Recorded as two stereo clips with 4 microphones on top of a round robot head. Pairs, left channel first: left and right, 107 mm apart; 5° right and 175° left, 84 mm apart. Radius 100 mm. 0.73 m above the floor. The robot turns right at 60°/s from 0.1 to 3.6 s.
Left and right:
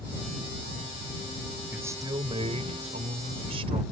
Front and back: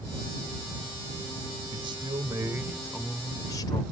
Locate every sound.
1.7 s a man speaking: 165° right; by 3.8 s 50° right